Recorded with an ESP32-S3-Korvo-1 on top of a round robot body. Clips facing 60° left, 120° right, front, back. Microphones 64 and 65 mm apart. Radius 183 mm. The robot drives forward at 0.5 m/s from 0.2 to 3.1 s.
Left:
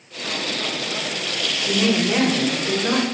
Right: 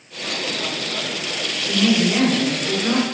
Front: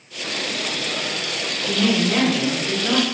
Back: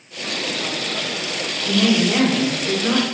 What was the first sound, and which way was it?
A woman speaking, 110° left.